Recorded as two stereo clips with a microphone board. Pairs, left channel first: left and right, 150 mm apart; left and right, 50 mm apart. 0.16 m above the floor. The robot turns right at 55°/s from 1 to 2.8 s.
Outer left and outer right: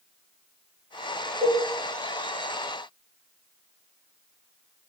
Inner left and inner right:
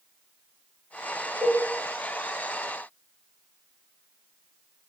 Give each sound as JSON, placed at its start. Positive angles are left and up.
{"t": 1.4, "sound": "a cowbell", "side_deg": -25, "distance_m": 0.9}